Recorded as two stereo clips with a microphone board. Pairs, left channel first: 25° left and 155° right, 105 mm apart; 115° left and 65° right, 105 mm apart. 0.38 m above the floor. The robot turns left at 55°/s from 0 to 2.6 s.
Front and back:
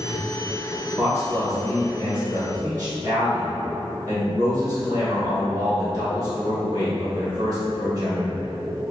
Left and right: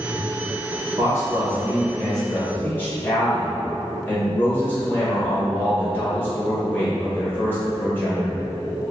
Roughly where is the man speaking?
Right.